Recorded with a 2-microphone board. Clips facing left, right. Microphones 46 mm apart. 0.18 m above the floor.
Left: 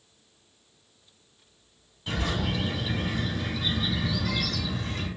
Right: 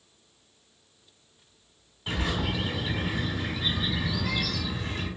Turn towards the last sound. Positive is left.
turn(degrees=-20)  # may be behind; listen again after turning